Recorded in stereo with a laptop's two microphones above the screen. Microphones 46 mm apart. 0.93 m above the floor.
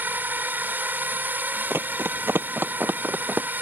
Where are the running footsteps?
55° right (ahead or behind); by 3.5 s 35° right (ahead or behind).